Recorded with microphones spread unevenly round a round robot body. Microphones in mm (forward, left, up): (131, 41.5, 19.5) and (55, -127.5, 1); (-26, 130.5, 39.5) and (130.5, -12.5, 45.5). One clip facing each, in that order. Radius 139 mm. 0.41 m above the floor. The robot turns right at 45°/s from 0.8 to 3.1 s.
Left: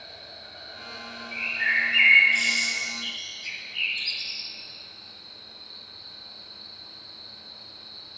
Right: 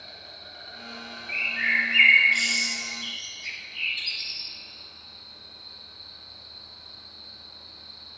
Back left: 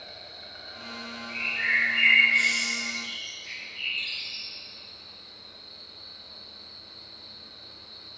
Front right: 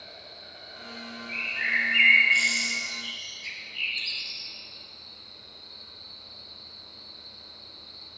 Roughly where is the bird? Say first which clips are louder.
Right 4 dB, back left 1 dB; behind right.